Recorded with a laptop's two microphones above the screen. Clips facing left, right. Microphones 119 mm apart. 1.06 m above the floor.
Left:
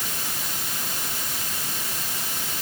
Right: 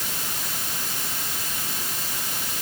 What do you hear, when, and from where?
Only background noise.